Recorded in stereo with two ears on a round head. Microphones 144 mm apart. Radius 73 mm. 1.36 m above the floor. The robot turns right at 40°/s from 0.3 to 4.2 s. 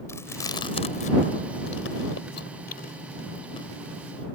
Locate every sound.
0.1 s chewing: 15° left (ahead or behind); by 4.2 s 5° left (ahead or behind)